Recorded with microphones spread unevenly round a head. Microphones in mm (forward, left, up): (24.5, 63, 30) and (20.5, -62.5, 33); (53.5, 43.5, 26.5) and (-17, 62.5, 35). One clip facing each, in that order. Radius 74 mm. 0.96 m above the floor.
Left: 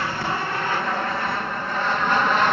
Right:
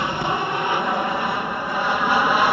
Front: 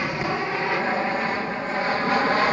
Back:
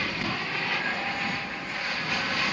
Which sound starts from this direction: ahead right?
An aircraft, at 0.0 s.